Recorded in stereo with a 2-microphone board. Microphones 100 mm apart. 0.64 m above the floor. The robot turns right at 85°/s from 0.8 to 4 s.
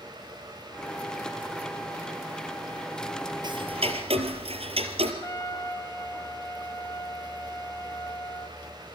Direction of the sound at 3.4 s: 135° right.